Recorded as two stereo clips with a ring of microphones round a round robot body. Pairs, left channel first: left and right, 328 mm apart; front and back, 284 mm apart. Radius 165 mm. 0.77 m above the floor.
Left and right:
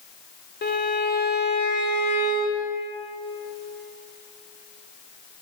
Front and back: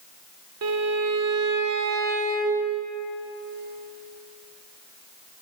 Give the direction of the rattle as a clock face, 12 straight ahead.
No rattle in this recording.